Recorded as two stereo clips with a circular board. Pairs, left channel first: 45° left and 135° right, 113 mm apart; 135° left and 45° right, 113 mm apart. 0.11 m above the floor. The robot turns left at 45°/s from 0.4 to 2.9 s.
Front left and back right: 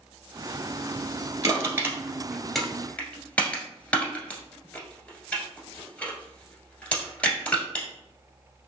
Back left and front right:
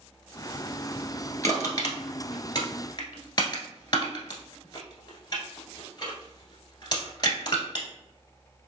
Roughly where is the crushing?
Behind.